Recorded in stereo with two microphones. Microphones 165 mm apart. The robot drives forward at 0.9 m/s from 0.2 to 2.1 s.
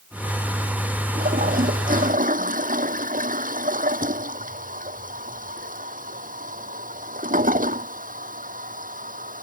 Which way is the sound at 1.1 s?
55° right (ahead or behind).